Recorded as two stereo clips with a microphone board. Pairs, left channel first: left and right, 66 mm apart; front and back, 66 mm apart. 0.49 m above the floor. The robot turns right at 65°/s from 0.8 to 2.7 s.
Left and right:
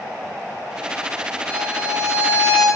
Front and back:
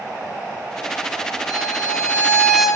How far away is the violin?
About 8 m.